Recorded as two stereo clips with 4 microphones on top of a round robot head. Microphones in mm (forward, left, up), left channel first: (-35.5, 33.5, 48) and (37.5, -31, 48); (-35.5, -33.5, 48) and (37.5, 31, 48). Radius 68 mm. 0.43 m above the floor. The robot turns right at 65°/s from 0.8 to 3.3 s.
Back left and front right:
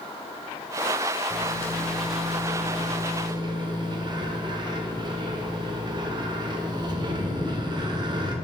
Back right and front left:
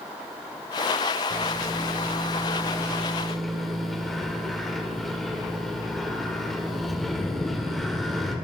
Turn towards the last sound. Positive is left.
turn(degrees=-50)